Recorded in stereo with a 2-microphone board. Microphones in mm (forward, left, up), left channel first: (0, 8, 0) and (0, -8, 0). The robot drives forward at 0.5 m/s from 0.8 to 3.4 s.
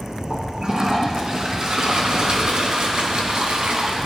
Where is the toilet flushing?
45° right (ahead or behind), 3 m; by 4.1 s 70° right (ahead or behind), 2 m.